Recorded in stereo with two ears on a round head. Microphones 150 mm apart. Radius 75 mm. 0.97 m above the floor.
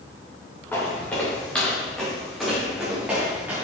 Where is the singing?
I don't hear singing.